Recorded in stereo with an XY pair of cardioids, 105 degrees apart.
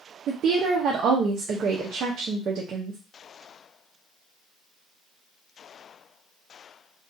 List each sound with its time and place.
0.3 s a woman speaking: 70° right, 0.6 m